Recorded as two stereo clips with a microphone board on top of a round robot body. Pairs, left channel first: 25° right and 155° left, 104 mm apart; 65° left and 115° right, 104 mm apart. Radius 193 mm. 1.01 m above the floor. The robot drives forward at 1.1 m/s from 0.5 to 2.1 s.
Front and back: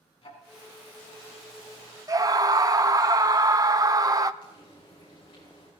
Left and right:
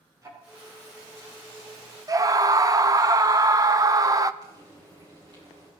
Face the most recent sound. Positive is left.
turn(degrees=-60)